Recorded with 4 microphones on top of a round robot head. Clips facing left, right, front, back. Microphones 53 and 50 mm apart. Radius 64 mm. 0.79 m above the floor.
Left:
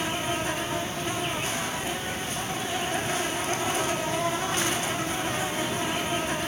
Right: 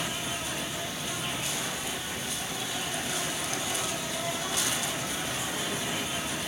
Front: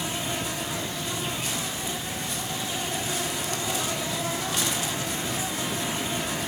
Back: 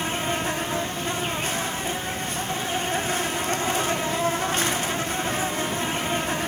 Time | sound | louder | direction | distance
0.0 | an insect | left 6 dB, back 5 dB | 140° left | 3 m